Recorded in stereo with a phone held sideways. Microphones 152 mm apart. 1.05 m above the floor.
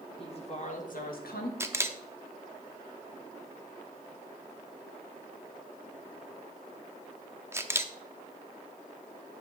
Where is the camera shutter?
20° right (ahead or behind), 0.5 m.